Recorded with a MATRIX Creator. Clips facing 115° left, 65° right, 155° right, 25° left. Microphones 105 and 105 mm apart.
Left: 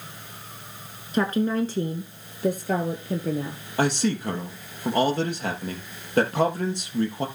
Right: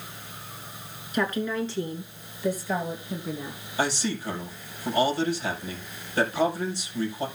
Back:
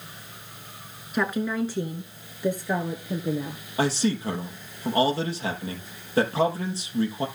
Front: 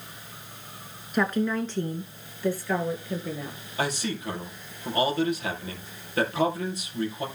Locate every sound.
1.1 s a woman speaking: 115° left, 1.4 m; by 3.6 s 135° left, 3 m
3.8 s a man speaking: 145° left, 4 m